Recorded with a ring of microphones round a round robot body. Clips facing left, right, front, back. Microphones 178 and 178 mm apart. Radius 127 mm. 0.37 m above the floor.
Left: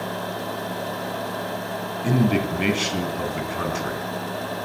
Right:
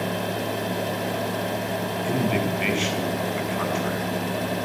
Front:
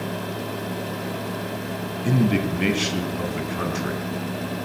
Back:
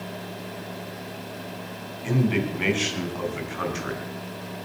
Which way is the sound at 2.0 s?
45° left.